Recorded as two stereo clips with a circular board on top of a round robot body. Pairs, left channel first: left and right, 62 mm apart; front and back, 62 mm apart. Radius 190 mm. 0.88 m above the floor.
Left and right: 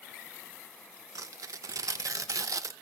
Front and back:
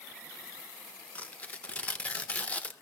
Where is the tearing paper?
65° right, 1.0 m.